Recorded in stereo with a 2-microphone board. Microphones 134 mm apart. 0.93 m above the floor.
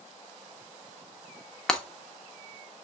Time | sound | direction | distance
1.7 | breaking glass | 5° left (ahead or behind) | 0.9 m